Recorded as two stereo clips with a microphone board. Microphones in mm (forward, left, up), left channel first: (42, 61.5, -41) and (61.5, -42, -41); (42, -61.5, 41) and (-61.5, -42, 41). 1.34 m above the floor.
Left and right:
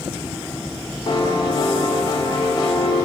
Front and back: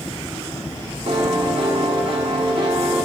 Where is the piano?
145° left, 1.4 m.